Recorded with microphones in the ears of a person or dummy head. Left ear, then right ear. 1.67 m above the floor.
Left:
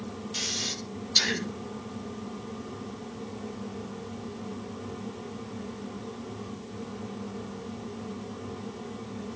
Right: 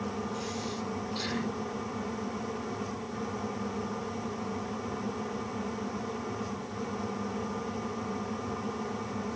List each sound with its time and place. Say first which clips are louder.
0.3 s breathing: left 5 dB; 75° left (ahead or behind), 7 m